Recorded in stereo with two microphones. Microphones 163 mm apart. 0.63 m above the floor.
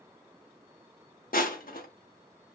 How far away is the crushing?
About 0.5 m.